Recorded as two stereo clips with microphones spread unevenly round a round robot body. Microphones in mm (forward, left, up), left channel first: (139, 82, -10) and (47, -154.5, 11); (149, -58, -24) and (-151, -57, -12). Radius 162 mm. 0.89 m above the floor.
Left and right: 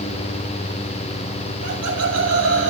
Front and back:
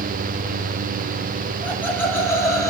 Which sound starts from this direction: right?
Laughter, at 1.6 s.